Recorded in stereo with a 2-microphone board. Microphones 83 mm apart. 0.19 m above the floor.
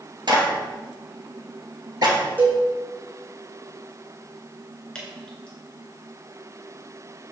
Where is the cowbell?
20° right (ahead or behind), 2.5 m.